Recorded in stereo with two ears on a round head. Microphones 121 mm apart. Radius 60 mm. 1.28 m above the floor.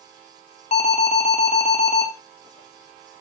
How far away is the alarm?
About 3 m.